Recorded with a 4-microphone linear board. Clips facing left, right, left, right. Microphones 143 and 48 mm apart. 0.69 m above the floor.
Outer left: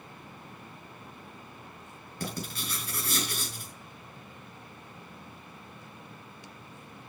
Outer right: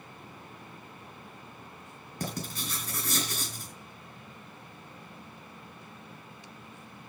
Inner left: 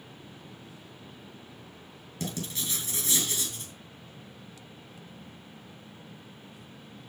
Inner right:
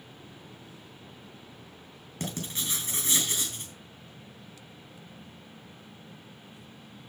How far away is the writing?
About 5.5 m.